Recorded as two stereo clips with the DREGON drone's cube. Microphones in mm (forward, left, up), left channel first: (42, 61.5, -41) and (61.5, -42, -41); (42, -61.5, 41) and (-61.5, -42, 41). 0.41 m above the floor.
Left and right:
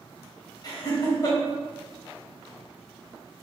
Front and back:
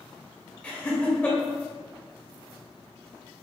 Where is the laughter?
65° left, 1.6 m.